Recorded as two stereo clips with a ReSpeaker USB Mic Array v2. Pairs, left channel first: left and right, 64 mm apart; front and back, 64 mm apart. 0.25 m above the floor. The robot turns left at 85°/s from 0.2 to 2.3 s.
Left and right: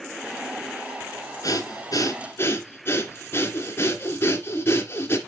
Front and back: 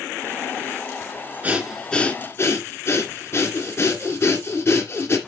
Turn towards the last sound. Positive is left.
turn(degrees=40)